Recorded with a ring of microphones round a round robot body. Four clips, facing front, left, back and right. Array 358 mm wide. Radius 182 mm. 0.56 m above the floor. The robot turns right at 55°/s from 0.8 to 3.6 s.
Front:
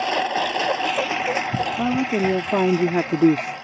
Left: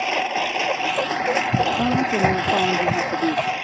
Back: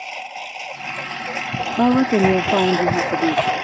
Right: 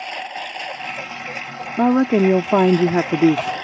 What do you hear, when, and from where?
0.0 s a lawn mower: 35° left; by 3.6 s 170° right
1.8 s a woman speaking: 140° right; by 3.5 s 45° right